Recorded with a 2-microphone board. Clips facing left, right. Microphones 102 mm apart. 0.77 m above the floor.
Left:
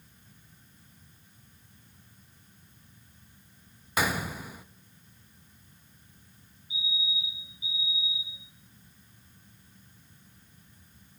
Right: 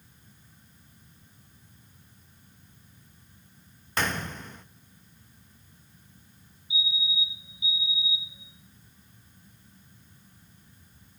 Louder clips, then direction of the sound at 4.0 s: Left 1 dB; 10° left (ahead or behind).